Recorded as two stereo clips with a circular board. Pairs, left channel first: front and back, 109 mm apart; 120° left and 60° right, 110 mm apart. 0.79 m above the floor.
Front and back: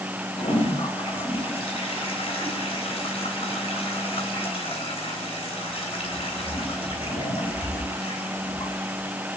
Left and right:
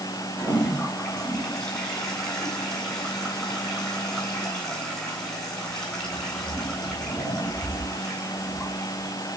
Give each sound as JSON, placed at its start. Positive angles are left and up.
{"t": 0.3, "sound": "a toilet flushing", "azimuth_deg": 35, "distance_m": 9.5}